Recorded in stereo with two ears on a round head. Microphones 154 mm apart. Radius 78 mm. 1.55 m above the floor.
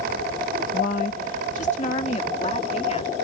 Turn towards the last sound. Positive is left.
turn(degrees=40)  # may be behind; listen again after turning